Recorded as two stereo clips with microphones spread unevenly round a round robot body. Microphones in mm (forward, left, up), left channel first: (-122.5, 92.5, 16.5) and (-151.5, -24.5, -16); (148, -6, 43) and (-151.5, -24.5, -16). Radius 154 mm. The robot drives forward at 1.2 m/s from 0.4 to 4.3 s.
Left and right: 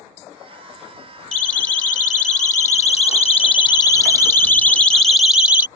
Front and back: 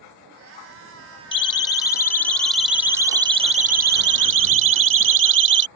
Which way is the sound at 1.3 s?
80° left.